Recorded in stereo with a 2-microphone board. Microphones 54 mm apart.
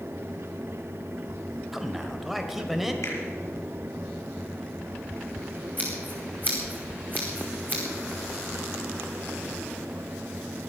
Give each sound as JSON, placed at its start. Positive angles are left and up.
{"t": 1.7, "sound": "a man speaking", "side_deg": -5, "distance_m": 1.4}
{"t": 3.0, "sound": "a finger snap", "side_deg": 55, "distance_m": 4.5}
{"t": 5.8, "sound": "scissors", "side_deg": -40, "distance_m": 3.5}